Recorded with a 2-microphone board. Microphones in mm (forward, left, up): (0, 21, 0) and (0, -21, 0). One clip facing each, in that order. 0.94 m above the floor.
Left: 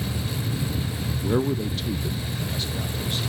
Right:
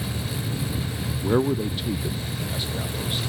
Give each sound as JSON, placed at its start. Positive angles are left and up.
{"t": 1.2, "sound": "a man speaking", "side_deg": -15, "distance_m": 0.6}